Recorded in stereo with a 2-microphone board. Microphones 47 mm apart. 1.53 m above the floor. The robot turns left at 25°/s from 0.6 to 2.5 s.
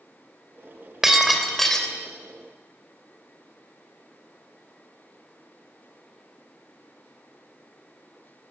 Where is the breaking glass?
10° right (ahead or behind), 3 m; by 1.9 s 10° left (ahead or behind), 3 m.